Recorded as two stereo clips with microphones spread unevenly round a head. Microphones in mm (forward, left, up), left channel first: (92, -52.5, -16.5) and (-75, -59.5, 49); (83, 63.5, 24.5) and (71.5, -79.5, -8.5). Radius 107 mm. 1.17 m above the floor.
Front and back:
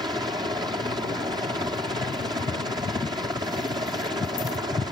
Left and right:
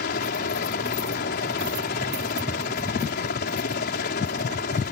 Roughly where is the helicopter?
Left.